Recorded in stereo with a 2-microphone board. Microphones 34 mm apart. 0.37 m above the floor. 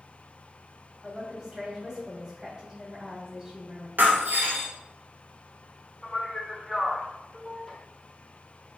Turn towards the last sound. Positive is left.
turn(degrees=0)  # may be behind; listen again after turning